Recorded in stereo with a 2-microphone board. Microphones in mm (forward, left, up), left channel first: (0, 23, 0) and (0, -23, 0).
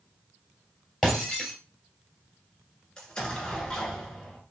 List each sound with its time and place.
1.0 s breaking glass: 5° left (ahead or behind), 2.5 m
3.0 s an explosion: 15° left (ahead or behind), 1.5 m